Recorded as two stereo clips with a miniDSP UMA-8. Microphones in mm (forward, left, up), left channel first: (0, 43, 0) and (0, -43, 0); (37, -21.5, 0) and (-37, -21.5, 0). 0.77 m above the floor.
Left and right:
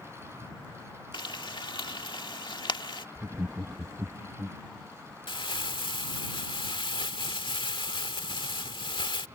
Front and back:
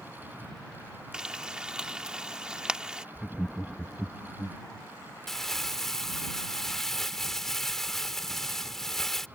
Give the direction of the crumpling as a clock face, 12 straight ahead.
9 o'clock.